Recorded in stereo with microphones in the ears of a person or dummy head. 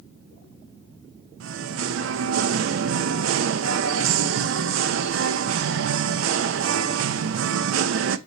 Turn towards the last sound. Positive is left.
turn(degrees=-70)  # may be behind; listen again after turning